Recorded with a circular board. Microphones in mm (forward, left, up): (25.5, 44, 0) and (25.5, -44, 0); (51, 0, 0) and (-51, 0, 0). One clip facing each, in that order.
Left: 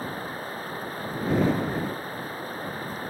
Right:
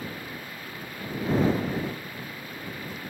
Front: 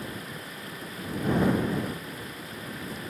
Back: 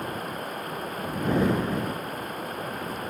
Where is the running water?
140° left.